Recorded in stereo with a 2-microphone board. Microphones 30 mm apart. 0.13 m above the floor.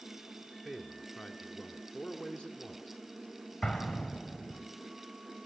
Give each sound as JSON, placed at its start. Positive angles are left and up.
{"t": 0.7, "sound": "a man speaking", "side_deg": 30, "distance_m": 2.0}
{"t": 3.6, "sound": "an explosion", "side_deg": 35, "distance_m": 4.5}